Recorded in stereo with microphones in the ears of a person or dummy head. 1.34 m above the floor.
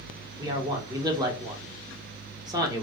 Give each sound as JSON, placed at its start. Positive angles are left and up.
{"t": 0.4, "sound": "a man speaking", "side_deg": -20, "distance_m": 0.9}